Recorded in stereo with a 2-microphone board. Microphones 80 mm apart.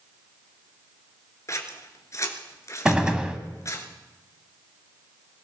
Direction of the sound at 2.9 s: 10° right (ahead or behind).